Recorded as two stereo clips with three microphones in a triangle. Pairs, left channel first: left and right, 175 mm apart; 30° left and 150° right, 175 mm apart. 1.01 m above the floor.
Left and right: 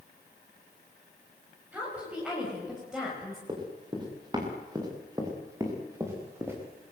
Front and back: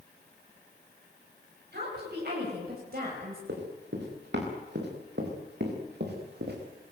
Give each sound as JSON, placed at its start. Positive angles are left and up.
{"t": 1.7, "sound": "a woman speaking", "azimuth_deg": -170, "distance_m": 6.5}
{"t": 3.5, "sound": "running footsteps", "azimuth_deg": -155, "distance_m": 7.0}